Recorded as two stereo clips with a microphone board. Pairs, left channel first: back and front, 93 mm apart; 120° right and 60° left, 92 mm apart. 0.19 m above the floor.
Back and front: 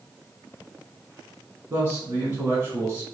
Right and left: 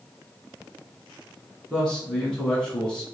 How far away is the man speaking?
About 1.8 m.